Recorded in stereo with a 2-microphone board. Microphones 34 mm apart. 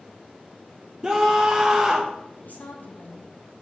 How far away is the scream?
About 0.7 m.